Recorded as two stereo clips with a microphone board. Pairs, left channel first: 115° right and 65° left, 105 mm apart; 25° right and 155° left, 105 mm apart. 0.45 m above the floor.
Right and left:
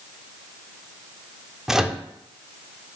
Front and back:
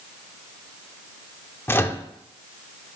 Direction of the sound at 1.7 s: 10° right.